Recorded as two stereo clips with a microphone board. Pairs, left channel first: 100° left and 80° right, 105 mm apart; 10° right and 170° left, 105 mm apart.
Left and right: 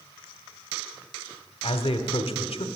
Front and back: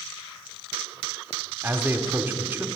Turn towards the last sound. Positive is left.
turn(degrees=100)